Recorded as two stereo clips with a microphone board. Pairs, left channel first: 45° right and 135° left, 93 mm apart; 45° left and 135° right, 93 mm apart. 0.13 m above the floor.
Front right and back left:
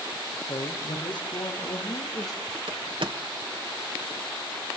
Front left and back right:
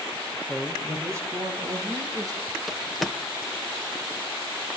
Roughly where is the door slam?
Behind left.